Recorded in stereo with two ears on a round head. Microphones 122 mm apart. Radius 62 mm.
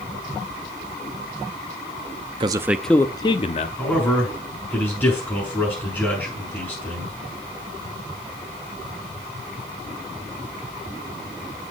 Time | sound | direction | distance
2.4 | a man speaking | 35° right (ahead or behind) | 0.6 m
3.8 | a man speaking | 15° left (ahead or behind) | 7 m